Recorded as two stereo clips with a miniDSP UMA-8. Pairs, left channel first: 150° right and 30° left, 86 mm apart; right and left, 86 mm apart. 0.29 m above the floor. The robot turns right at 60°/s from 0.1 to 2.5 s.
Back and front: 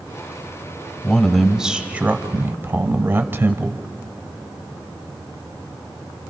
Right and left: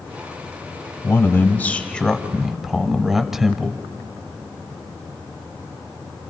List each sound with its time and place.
1.0 s a man speaking: 80° right, 1.0 m; by 3.8 s 10° left, 1.0 m